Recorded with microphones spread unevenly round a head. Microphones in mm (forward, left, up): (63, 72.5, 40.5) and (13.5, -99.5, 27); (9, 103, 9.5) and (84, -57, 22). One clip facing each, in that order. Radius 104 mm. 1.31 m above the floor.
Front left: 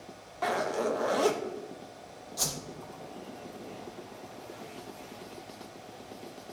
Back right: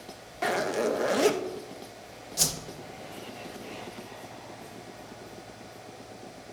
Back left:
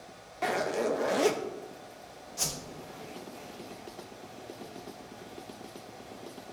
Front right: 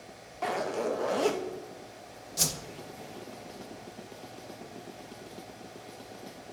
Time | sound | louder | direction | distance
0.4 | a zipper | back right 2 dB, back left 1 dB | 170° right | 0.7 m
2.4 | a whoosh | back right 3 dB, front right 3 dB | 45° right | 0.8 m